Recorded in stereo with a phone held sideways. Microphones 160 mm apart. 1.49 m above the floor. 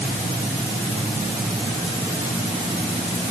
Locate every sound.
Only background noise.